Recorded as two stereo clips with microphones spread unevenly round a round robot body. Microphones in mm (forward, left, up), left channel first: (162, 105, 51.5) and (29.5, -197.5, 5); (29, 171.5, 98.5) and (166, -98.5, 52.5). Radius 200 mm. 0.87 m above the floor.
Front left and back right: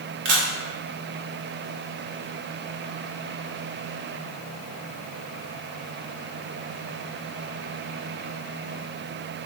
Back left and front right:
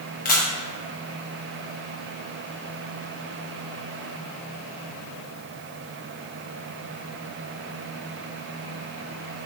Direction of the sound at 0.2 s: 175° right.